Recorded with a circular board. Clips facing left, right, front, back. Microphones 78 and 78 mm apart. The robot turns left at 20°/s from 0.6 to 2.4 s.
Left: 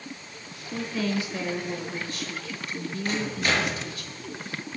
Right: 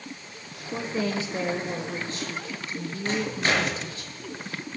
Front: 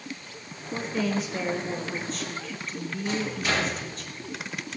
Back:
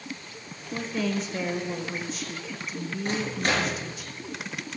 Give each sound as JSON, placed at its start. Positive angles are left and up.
{"t": 0.7, "sound": "a woman speaking", "azimuth_deg": -70, "distance_m": 0.9}
{"t": 3.0, "sound": "a microwave", "azimuth_deg": -150, "distance_m": 5.5}